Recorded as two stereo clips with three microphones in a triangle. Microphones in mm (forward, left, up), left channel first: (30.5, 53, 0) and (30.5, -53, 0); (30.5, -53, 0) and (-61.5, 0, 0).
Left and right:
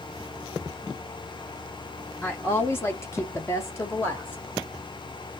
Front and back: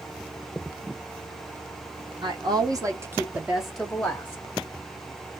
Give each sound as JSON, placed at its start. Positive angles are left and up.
{"t": 2.2, "sound": "a woman speaking", "azimuth_deg": 155, "distance_m": 1.0}